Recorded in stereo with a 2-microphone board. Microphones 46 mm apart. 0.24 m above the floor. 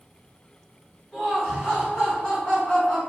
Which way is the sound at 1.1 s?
10° left (ahead or behind).